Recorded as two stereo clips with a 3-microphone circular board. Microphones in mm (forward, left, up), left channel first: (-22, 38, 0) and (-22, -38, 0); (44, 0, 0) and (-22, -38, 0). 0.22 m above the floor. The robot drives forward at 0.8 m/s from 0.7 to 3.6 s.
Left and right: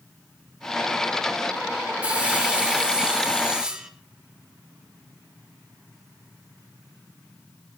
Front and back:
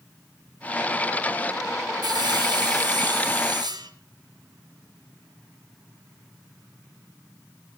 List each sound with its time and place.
2.0 s sawing: 165° right, 5.5 m